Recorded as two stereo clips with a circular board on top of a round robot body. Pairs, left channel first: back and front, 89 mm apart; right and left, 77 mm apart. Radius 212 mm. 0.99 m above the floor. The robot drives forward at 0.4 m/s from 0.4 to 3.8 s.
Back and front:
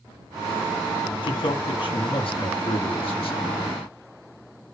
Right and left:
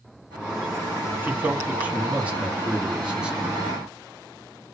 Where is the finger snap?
No finger snap in this recording.